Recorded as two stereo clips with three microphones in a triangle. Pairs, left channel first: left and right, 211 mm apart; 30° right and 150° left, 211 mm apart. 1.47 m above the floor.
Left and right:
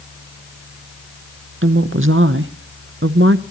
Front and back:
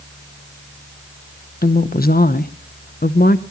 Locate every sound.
1.6 s a woman speaking: 75° right, 0.9 m